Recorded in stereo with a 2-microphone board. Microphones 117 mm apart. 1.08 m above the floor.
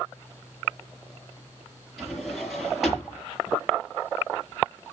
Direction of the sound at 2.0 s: Centre (ahead or behind).